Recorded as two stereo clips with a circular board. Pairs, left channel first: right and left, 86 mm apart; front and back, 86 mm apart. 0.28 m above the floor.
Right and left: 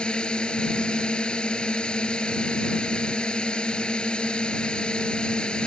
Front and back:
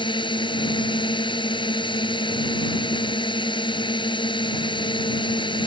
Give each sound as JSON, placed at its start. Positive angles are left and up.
{"t": 0.0, "sound": "a drone", "azimuth_deg": -10}